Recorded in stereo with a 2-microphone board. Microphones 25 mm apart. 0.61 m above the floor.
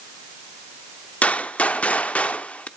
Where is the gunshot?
65° left (ahead or behind), 0.6 m.